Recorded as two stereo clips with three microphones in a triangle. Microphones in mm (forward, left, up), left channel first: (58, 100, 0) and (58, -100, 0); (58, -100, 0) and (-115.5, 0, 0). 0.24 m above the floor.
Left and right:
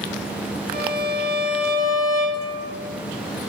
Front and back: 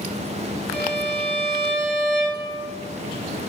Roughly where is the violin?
Ahead left.